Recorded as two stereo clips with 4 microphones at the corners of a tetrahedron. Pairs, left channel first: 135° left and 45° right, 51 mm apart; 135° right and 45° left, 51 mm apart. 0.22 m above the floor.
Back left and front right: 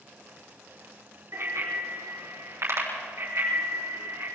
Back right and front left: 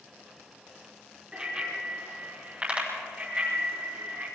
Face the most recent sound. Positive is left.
turn(degrees=-10)